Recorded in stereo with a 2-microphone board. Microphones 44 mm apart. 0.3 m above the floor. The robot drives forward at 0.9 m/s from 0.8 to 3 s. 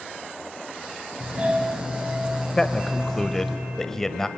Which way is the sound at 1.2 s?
35° right (ahead or behind).